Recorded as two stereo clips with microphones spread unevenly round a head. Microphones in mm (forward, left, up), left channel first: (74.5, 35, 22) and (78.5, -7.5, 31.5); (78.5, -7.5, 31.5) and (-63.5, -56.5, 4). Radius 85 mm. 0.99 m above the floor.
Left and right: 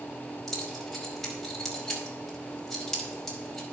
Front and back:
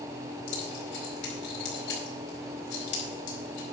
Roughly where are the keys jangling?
Ahead.